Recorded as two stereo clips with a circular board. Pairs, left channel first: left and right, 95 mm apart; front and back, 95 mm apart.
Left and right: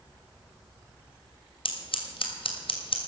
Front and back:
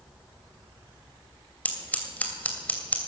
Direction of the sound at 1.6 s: 75° left.